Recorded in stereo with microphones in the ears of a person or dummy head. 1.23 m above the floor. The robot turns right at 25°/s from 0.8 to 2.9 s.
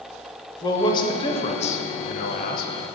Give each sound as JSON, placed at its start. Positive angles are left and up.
{"t": 0.6, "sound": "a man speaking", "azimuth_deg": 30, "distance_m": 0.5}